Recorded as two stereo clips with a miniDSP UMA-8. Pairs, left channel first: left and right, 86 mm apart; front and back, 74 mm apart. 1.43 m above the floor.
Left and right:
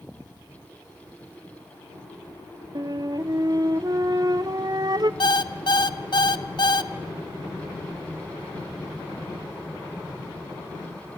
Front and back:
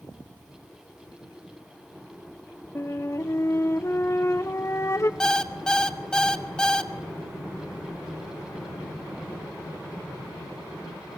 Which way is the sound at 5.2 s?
80° left.